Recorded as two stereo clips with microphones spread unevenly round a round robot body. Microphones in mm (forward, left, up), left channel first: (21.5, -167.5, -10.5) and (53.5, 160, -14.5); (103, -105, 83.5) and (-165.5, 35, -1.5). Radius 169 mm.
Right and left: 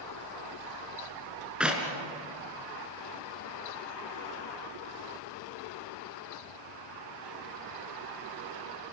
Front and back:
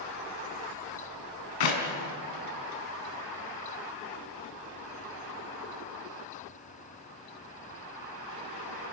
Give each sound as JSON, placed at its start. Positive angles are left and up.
{"t": 1.6, "sound": "a clap", "azimuth_deg": 0, "distance_m": 3.5}